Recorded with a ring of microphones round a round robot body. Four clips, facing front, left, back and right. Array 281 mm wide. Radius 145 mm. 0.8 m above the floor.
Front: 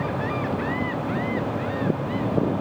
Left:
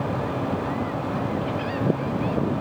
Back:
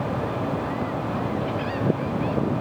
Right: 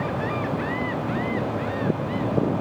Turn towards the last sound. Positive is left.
No sound to turn to.